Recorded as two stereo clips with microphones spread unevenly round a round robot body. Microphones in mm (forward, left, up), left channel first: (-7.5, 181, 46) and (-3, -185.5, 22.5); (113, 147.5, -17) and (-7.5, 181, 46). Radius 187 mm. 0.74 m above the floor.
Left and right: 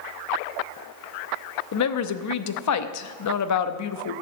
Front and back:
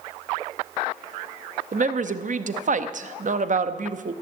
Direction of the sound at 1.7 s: 125° left.